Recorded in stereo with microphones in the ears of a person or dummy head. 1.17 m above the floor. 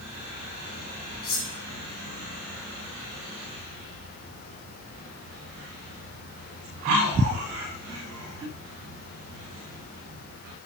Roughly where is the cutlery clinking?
Left.